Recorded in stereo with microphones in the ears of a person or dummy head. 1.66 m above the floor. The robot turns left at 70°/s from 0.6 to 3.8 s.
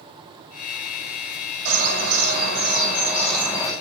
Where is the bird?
40° right, 5.5 m; by 3.7 s 175° left, 5.5 m.